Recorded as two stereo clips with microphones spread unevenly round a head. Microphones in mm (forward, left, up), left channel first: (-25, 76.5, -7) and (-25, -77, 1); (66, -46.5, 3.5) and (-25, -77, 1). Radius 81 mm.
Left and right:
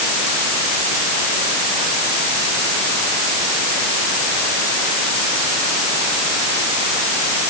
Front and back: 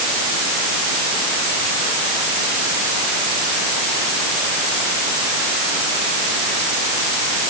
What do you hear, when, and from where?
Only background noise.